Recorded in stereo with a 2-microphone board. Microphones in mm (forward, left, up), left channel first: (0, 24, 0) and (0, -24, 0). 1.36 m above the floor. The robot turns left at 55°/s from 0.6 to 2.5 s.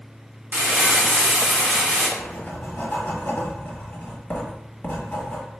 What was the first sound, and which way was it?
Crumpling, 115° right.